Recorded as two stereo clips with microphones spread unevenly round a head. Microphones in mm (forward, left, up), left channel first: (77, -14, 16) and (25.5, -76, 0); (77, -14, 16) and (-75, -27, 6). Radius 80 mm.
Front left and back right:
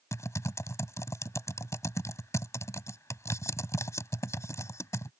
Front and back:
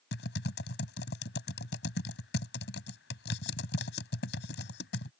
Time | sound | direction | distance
0.1 | typing on a keyboard | straight ahead | ?